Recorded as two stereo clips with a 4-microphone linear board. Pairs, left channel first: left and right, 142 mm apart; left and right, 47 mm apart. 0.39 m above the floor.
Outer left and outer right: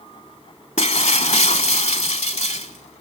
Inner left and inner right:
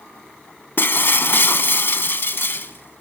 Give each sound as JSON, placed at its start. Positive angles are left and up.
{"t": 0.8, "sound": "breaking glass", "side_deg": 50, "distance_m": 1.1}